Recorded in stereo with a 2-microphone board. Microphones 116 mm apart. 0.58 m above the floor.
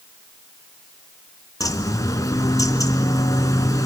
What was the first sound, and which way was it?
A bird, 30° left (ahead or behind).